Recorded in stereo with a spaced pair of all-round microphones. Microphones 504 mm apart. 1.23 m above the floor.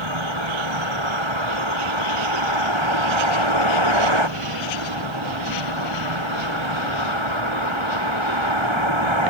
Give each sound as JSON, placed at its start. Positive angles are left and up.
{"t": 0.0, "sound": "a vehicle", "side_deg": -65}